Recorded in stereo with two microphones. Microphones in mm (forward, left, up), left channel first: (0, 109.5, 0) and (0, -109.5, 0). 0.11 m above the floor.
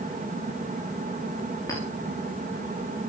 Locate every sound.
1.7 s a clink: 15° left (ahead or behind), 6 m